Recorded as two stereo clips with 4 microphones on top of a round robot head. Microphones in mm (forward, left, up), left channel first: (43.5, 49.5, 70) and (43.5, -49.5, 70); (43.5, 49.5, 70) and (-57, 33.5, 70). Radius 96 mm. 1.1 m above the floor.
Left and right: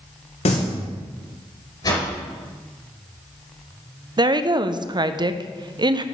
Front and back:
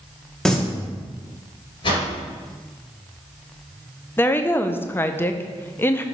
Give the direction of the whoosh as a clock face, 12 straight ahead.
10 o'clock.